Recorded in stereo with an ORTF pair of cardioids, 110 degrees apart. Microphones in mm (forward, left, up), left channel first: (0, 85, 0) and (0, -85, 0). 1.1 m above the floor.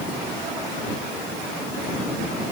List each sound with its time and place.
Only background noise.